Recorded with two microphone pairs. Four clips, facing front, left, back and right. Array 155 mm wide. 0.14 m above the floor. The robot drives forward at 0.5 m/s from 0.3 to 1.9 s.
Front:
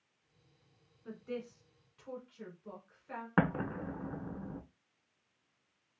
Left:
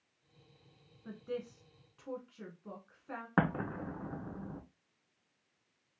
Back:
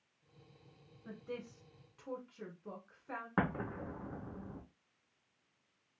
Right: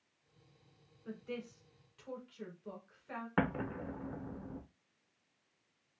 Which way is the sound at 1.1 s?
75° left.